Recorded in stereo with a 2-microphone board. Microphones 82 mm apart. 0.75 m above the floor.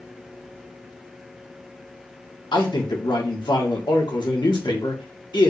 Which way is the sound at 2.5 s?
65° left (ahead or behind).